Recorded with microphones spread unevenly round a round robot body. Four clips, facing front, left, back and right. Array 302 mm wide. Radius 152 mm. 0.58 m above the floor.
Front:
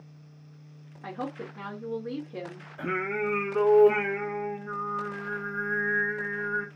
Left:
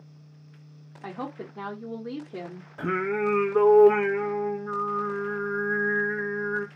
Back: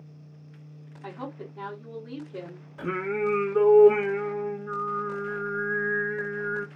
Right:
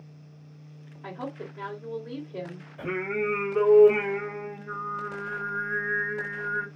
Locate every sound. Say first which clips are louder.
1.0 s a woman speaking: left 1 dB, front 2 dB; 70° left, 1.8 m
2.8 s singing: left 3 dB, back 2 dB; 95° left, 1.1 m